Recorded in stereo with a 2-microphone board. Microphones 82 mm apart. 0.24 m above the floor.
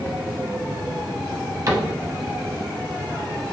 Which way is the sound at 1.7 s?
45° right (ahead or behind).